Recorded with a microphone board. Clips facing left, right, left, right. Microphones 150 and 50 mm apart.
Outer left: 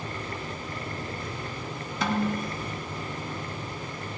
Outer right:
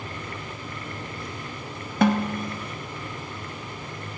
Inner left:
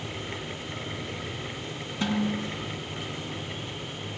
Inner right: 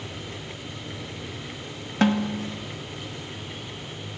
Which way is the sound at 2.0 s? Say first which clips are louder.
Outer right 6 dB, inner right 5 dB; 55° right (ahead or behind).